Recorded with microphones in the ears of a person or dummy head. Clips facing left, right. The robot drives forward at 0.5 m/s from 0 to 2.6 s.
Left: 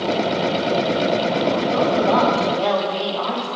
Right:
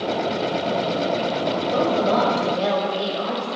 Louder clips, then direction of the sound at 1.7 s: Even; 25° right (ahead or behind).